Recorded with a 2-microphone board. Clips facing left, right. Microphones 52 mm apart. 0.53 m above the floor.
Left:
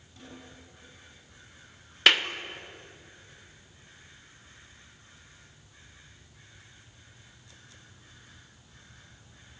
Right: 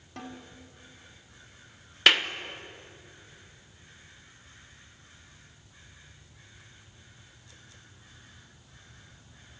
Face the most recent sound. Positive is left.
turn(degrees=0)  # may be behind; listen again after turning